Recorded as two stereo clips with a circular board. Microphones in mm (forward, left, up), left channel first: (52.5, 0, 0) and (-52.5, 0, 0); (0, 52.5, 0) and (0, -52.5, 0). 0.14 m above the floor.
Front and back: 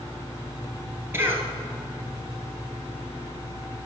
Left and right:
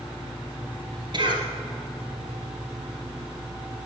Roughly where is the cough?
Behind right.